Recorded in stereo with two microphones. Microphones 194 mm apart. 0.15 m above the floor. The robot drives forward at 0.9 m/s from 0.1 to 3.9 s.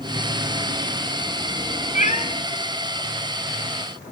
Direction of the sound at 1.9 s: 45° left (ahead or behind).